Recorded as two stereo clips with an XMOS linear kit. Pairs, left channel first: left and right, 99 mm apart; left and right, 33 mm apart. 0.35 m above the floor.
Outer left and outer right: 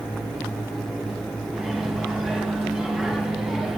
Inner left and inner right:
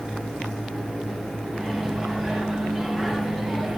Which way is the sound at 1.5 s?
5° right (ahead or behind).